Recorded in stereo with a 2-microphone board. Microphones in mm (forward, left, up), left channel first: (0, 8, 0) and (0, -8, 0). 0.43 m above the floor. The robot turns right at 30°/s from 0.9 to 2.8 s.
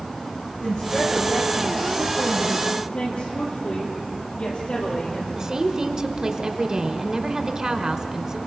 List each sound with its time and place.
0.6 s a woman speaking: 80° left, 6.5 m; by 2.7 s 130° left, 6.5 m
2.8 s a woman speaking: 70° left (ahead or behind), 10 m
5.3 s a woman speaking: 35° right (ahead or behind), 1.6 m